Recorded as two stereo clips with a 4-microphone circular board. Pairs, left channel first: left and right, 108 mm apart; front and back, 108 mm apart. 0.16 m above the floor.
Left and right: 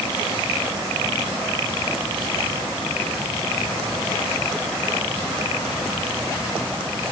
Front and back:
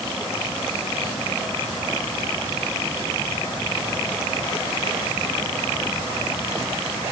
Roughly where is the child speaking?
No child speaking in this recording.